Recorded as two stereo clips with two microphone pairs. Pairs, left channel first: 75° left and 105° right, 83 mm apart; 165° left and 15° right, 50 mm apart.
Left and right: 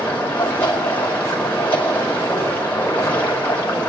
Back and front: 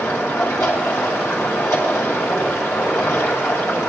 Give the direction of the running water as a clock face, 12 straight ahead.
7 o'clock.